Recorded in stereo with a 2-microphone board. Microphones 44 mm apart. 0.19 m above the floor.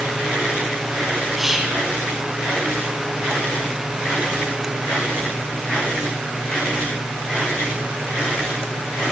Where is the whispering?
5° right (ahead or behind), 1.4 m.